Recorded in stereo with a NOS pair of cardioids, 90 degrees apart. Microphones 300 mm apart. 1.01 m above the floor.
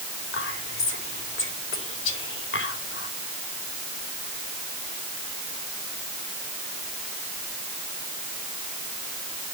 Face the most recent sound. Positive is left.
turn(degrees=40)